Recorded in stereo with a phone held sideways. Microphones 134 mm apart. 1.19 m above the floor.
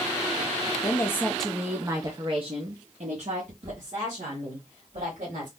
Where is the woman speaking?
30° left (ahead or behind), 0.7 m; by 5.5 s 75° right (ahead or behind), 2 m.